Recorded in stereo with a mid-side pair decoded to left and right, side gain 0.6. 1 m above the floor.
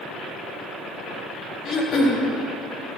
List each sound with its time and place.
1.6 s throat clearing: 40° left, 1.4 m